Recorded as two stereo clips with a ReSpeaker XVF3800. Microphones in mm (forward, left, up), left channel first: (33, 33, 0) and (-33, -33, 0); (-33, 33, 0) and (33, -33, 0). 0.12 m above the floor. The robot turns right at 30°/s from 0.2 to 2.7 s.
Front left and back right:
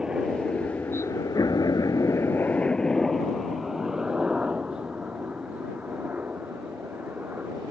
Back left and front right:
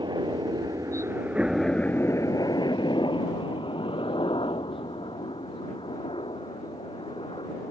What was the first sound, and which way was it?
A helicopter, 55° right.